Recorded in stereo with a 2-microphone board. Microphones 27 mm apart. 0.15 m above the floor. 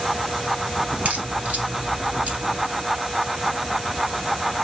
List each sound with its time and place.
0.9 s a crack: 60° right (ahead or behind), 2.5 m